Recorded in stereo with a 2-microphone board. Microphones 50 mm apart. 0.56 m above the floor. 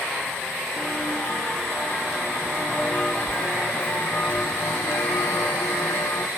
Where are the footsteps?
5° left (ahead or behind), 3.5 m; by 6.3 s 60° left (ahead or behind), 1.4 m.